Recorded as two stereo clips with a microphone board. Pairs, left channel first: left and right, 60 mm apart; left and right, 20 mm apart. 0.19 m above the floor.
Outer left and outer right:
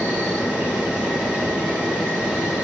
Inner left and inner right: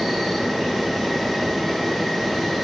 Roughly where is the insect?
Right.